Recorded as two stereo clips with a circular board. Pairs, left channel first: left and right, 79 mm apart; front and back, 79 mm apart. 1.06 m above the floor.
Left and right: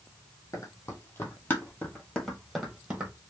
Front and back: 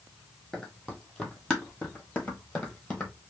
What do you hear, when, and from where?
0.5 s running footsteps: 85° left, 1.4 m; by 3.1 s 45° right, 1.2 m